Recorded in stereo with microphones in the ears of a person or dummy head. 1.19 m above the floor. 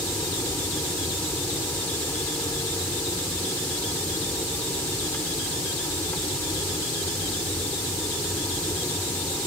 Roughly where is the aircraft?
Centre.